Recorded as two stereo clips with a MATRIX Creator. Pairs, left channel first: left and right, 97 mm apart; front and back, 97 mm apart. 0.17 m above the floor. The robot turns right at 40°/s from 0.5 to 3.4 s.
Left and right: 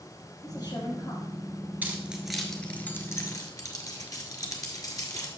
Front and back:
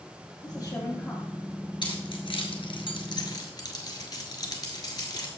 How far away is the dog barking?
No dog barking in this recording.